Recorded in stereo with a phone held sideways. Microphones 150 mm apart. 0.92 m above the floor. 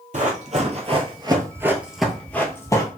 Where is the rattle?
I don't hear a rattle.